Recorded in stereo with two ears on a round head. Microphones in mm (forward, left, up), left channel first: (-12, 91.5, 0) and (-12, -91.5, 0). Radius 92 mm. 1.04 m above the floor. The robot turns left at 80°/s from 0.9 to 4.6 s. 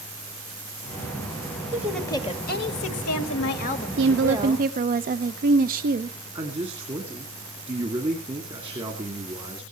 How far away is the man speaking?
About 2 m.